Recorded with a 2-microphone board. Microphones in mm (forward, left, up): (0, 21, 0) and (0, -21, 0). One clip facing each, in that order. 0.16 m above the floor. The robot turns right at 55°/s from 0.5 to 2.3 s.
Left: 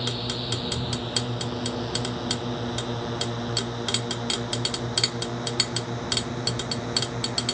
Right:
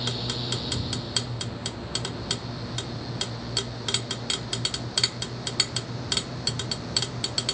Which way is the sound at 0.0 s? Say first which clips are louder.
Left 1 dB; 20° left (ahead or behind).